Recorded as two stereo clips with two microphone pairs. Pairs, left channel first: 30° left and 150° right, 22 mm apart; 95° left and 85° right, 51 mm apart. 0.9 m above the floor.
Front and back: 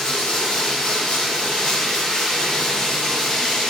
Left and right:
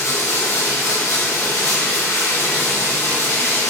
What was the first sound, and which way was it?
Running water, 85° left.